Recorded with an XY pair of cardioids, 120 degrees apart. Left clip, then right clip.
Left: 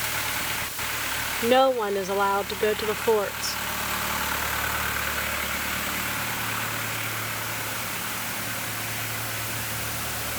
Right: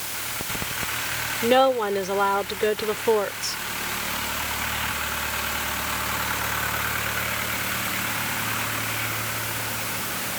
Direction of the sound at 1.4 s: Straight ahead.